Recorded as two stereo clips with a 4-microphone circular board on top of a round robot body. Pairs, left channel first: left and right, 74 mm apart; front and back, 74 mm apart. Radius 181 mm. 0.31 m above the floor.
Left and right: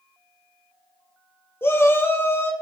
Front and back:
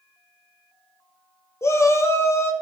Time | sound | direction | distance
1.6 | a shout | 40° left | 2 m